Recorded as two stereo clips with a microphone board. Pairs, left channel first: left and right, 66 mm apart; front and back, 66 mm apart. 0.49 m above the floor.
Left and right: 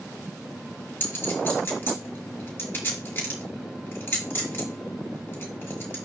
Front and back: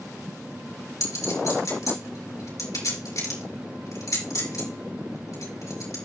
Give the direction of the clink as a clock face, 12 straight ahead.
11 o'clock.